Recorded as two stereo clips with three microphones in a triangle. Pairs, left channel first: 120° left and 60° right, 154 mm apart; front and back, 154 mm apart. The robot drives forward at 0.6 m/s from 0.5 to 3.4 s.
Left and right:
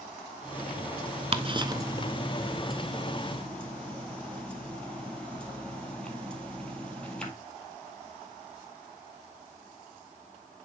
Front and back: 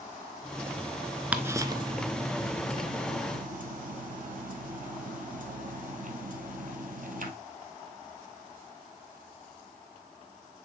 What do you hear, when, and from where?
1.3 s ticking: 100° right, 0.7 m; by 7.3 s 155° right, 1.5 m